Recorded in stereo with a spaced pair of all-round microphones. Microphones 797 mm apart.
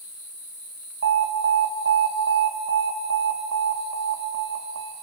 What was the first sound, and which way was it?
An alarm, 50° right (ahead or behind).